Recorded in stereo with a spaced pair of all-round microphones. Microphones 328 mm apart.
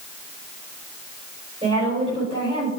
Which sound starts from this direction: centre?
A woman speaking, at 1.6 s.